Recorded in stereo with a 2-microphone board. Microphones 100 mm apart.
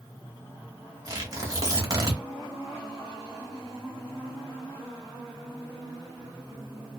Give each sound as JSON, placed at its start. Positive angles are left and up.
{"t": 1.1, "sound": "tearing paper", "side_deg": -35, "distance_m": 1.1}